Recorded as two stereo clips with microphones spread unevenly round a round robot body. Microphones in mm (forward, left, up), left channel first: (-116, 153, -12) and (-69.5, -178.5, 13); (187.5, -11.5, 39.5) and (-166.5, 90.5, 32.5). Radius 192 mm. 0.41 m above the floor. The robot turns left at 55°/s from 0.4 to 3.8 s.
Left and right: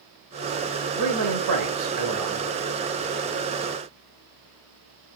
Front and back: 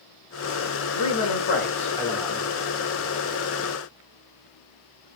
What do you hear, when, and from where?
0.9 s a man speaking: 35° right, 2 m; by 2.5 s 120° right, 2 m